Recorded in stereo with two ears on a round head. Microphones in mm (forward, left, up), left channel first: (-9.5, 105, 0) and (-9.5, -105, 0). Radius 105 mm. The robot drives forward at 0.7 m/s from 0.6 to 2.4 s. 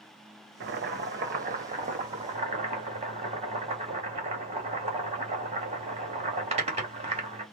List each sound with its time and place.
0.6 s boiling: 45° right (ahead or behind), 1.1 m; by 7.4 s 25° right (ahead or behind), 1.8 m